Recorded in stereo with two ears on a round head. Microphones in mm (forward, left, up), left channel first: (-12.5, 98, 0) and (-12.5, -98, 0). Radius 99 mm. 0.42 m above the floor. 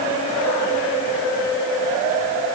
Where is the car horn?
No car horn in this recording.